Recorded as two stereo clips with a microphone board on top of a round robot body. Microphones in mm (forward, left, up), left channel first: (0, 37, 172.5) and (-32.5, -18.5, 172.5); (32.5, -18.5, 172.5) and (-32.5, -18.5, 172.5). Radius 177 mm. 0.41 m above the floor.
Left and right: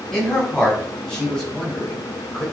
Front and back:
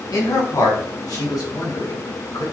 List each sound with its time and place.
0.1 s a man speaking: 20° right, 5 m; by 2.4 s 10° right, 3.5 m